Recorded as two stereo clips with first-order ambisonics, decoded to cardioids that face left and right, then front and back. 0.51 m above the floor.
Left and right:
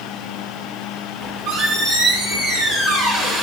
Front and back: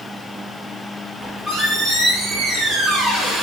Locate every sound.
1.2 s a squeak: 100° right, 1.6 m